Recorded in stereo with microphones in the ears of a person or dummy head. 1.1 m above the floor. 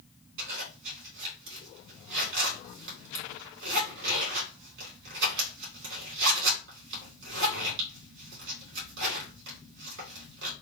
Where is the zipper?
65° right (ahead or behind), 2 m.